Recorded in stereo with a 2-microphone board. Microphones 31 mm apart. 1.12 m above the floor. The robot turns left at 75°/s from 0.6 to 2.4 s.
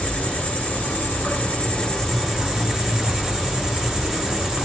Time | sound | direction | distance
0.0 | an insect | 125° left | 1.1 m